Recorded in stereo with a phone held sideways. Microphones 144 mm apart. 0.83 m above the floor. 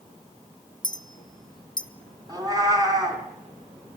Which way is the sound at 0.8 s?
30° left (ahead or behind).